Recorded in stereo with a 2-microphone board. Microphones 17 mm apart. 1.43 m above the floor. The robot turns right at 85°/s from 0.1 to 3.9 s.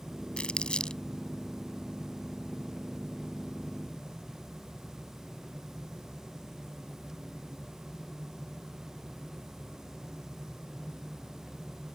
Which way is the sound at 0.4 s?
80° left.